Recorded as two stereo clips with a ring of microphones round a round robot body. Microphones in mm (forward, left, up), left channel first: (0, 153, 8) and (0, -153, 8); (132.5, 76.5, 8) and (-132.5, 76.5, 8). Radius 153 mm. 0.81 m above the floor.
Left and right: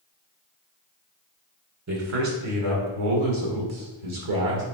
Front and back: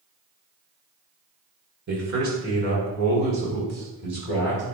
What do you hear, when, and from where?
1.9 s a man speaking: 125° right, 3.5 m; by 4.6 s 100° right, 3.5 m